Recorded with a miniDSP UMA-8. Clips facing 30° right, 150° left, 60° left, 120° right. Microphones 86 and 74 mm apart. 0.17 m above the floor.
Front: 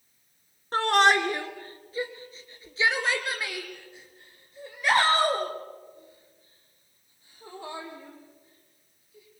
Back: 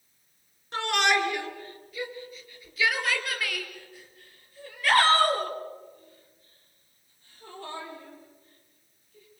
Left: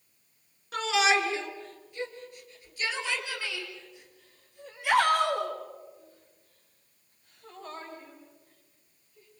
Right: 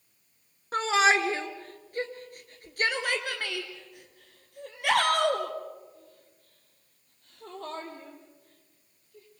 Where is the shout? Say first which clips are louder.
Front 4 dB, right 2 dB; 70° right, 2.0 m; by 9.4 s 110° right, 5.5 m.